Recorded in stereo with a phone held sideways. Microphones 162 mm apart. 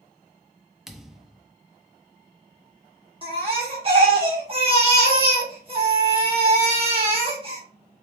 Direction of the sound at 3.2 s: 35° right (ahead or behind).